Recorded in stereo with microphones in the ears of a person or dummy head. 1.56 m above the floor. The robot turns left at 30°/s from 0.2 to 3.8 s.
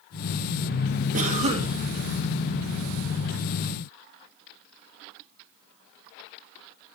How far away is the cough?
About 2.5 m.